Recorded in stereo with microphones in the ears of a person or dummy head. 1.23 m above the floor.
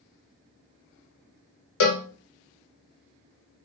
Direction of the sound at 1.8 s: 70° left (ahead or behind).